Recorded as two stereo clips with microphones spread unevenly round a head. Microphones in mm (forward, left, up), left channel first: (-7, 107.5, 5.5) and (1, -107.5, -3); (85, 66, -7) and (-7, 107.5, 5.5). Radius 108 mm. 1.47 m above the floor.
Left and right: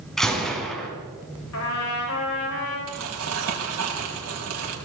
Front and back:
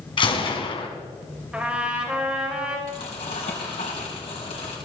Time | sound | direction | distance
0.2 | a gunshot | 5° left | 3 m
1.5 | a trumpet | 75° left | 5.5 m
2.9 | crumpling | 80° right | 4 m